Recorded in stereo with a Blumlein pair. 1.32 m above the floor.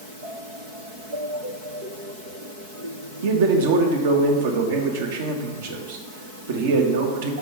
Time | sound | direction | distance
3.2 | a man speaking | 55° right | 1.1 m